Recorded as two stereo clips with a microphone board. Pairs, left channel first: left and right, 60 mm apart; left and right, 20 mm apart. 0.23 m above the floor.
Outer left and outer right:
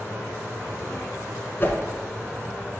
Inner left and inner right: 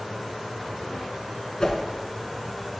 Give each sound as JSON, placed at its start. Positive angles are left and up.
{"t": 1.6, "sound": "a whoosh", "side_deg": 40, "distance_m": 0.9}